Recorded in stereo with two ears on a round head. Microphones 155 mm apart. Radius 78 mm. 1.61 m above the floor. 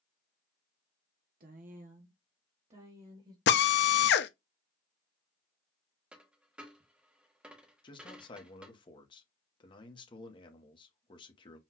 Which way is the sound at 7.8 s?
30° left (ahead or behind).